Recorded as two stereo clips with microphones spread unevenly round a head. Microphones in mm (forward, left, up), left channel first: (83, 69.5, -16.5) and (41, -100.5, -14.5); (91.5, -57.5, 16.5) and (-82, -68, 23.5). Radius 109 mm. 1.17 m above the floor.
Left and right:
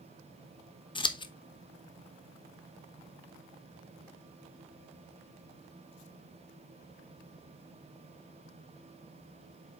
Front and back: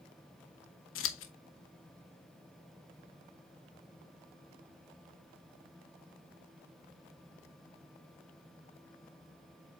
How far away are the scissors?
About 0.9 m.